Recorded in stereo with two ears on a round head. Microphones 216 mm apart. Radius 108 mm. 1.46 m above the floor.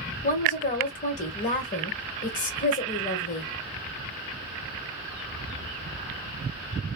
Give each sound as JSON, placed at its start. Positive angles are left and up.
{"t": 0.2, "sound": "a woman speaking", "side_deg": 35, "distance_m": 1.9}